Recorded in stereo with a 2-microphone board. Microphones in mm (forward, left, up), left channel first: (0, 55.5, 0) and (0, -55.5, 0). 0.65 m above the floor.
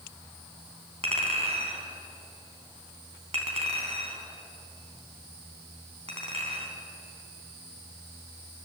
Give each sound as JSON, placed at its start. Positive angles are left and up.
{"t": 1.0, "sound": "a clink", "side_deg": -65, "distance_m": 4.0}